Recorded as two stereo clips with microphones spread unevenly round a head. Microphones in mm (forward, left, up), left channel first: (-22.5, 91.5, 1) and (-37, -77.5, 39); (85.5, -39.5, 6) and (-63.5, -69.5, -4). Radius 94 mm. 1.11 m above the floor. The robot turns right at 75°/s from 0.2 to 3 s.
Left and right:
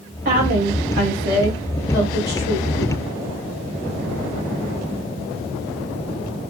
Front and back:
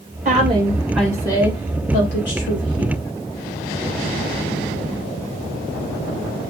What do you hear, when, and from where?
0.2 s a woman speaking: 130° right, 4 m; by 2.9 s 70° left, 4 m